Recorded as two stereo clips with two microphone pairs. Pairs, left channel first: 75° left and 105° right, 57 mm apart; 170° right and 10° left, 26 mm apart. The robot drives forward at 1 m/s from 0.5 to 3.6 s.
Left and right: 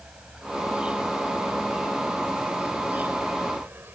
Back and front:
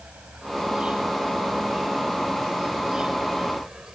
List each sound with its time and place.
0.0 s an insect: 30° right; by 4.0 s 50° right